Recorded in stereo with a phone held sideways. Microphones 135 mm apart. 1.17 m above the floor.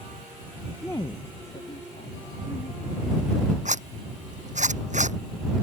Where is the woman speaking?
5° left (ahead or behind); by 3.5 s 85° left.